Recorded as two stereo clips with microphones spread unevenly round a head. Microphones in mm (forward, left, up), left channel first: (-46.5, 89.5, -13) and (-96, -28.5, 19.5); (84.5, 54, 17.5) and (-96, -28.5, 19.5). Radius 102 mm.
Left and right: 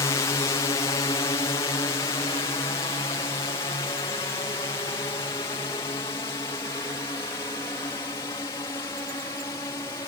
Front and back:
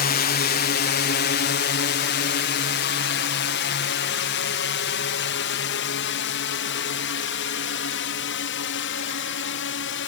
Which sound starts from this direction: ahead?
A drone, at 0.0 s.